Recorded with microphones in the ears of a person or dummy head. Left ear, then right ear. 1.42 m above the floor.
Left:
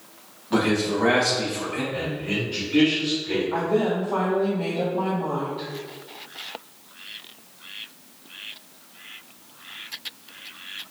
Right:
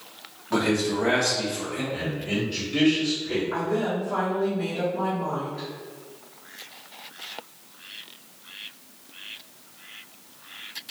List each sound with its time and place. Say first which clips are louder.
0.5 s a man speaking: left 1 dB; 15° right (ahead or behind), 1.5 m
1.9 s a man speaking: left 1 dB; 20° left (ahead or behind), 1.3 m
3.5 s a woman speaking: left 5 dB; 15° right (ahead or behind), 1.8 m